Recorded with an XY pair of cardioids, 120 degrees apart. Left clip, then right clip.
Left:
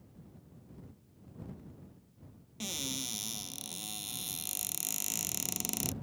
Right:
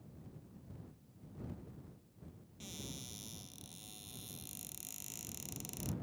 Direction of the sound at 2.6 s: 60° left.